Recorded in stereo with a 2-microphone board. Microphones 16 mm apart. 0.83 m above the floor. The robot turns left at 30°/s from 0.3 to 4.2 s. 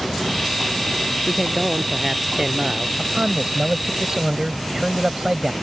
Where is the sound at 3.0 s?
105° right; by 5.5 s 140° right.